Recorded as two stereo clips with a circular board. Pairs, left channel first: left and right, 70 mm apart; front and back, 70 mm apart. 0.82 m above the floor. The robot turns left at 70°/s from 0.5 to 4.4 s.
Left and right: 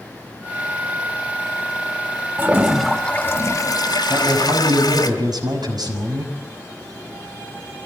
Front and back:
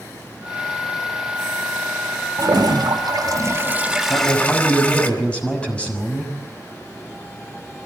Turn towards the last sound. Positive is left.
turn(degrees=-75)